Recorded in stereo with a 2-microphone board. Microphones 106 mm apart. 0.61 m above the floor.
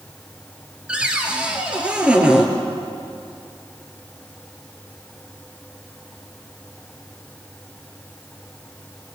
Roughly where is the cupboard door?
Centre.